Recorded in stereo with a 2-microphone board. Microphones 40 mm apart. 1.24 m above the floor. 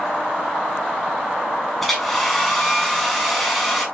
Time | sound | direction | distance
1.8 | a hair dryer | 5° left (ahead or behind) | 5.5 m